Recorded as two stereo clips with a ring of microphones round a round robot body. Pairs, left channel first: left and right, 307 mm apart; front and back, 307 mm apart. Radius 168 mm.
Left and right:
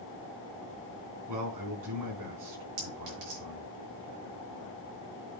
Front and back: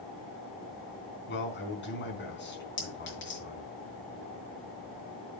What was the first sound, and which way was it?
A man speaking, 55° right.